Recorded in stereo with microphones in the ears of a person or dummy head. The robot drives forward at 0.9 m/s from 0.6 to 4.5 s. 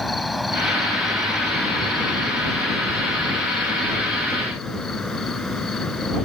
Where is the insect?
5° right (ahead or behind).